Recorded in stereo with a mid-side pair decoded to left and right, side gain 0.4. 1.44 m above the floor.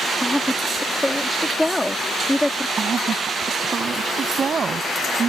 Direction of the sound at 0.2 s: 10° left.